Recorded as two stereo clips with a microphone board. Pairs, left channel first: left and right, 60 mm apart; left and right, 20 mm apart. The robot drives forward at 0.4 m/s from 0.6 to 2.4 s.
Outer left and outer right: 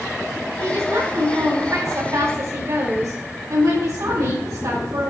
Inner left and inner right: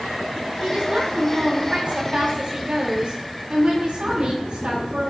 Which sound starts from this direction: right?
A woman speaking, at 0.6 s.